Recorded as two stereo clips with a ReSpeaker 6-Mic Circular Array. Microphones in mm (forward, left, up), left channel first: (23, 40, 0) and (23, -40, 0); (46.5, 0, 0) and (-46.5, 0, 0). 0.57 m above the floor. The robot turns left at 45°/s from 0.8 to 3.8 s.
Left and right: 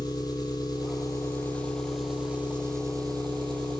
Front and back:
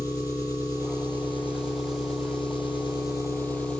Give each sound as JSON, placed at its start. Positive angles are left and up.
{"t": 0.0, "sound": "an engine running", "azimuth_deg": 55, "distance_m": 5.5}